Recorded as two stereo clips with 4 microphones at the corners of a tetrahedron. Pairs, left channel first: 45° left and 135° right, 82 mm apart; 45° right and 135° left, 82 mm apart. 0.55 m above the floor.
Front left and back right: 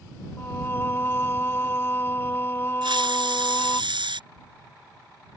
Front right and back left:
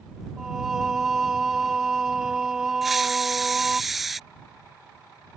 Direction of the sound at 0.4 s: 60° left.